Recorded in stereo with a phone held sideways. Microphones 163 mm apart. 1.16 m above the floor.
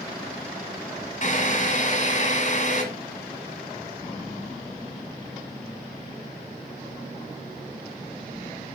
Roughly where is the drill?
Left.